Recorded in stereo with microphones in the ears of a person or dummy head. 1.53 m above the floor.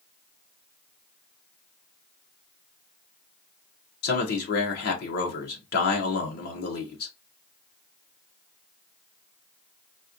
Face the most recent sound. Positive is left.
turn(degrees=60)  # may be behind; listen again after turning